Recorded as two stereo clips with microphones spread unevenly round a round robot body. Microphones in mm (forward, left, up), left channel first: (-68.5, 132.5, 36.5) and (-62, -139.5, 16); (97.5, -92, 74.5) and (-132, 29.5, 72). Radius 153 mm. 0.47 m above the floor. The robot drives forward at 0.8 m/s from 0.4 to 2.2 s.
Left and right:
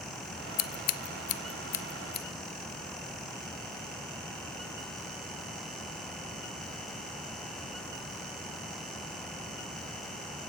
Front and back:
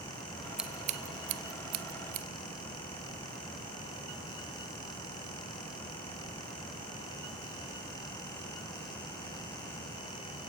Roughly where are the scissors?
Ahead left.